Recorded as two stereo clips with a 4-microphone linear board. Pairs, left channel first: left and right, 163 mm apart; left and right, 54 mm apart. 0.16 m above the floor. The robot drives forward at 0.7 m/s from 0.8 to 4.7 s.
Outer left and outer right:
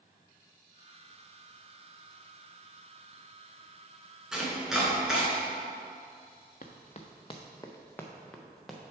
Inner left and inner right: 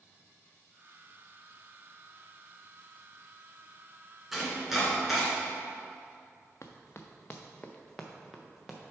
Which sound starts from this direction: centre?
Chopping, at 4.3 s.